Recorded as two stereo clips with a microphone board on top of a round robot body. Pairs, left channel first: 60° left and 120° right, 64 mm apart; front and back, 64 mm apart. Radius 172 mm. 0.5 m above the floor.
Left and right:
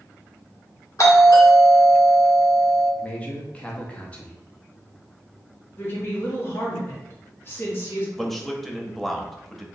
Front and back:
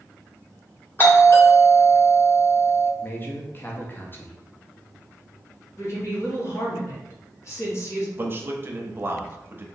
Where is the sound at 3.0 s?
10° left, 0.8 m.